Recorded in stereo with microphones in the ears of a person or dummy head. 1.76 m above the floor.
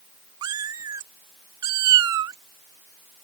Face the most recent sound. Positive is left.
turn(degrees=-25)  # may be behind; listen again after turning